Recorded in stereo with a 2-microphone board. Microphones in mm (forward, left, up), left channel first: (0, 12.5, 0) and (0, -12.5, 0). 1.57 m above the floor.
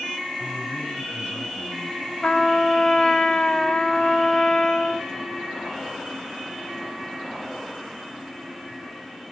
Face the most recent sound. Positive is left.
turn(degrees=30)  # may be behind; listen again after turning